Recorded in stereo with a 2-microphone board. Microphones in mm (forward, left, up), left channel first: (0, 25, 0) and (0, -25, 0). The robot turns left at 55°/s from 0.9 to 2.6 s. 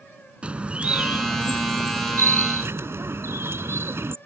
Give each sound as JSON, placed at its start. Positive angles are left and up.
{"t": 0.4, "sound": "a bird", "azimuth_deg": -25}